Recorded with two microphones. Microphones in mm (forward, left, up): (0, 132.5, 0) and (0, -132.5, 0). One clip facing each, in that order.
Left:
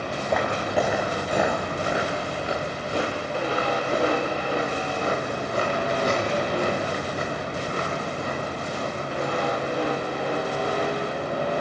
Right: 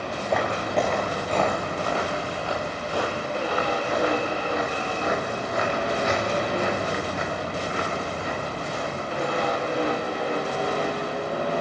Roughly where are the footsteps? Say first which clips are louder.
Even; centre.